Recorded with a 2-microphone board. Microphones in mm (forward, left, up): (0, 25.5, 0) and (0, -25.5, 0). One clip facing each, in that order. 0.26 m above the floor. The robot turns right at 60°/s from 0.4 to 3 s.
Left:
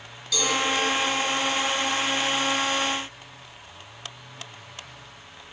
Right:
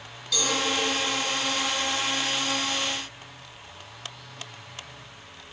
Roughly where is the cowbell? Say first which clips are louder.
Left 2 dB; centre.